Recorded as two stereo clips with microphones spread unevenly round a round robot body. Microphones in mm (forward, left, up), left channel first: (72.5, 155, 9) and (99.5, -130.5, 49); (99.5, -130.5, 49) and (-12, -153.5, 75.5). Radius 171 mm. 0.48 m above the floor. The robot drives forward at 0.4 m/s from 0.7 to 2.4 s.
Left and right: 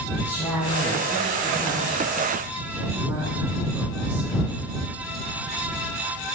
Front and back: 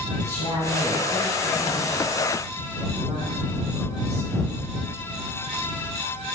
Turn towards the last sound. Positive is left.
turn(degrees=-175)